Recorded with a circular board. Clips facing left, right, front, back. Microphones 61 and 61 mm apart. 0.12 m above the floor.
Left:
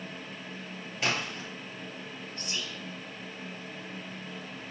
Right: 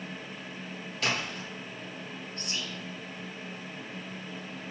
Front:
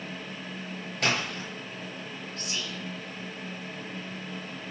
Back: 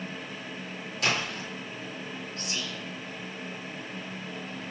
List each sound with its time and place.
1.0 s a splash: 30° left, 1.8 m
2.4 s whispering: 155° left, 1.1 m